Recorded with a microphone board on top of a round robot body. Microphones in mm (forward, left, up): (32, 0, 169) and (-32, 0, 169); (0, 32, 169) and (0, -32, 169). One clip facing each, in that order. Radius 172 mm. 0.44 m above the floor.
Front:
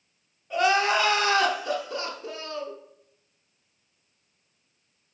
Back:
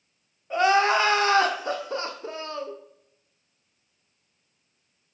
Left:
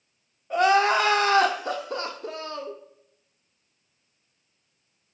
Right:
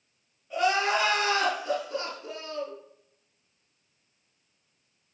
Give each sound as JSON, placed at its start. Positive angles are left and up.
{"t": 0.5, "sound": "crying", "azimuth_deg": 120, "distance_m": 0.8}